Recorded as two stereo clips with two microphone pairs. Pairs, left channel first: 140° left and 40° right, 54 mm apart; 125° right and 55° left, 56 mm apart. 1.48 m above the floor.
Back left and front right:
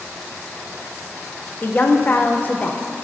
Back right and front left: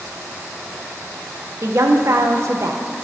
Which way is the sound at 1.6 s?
85° left.